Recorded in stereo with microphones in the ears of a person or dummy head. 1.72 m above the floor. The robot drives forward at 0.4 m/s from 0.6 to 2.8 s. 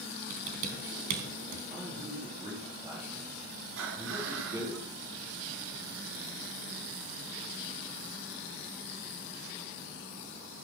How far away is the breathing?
About 4 m.